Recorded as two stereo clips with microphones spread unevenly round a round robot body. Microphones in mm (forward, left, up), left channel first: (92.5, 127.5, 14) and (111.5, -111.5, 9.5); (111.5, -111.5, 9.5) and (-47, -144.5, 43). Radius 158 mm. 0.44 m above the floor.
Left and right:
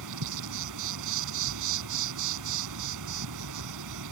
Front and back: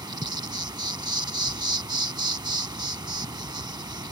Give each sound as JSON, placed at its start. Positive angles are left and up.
{"t": 0.0, "sound": "an insect", "azimuth_deg": -100}